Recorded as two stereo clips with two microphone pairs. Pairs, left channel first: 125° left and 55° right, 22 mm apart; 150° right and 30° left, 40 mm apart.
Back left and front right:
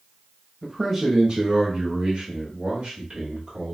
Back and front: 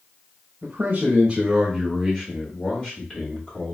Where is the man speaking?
15° left, 0.9 m; by 3.7 s 95° right, 2.0 m.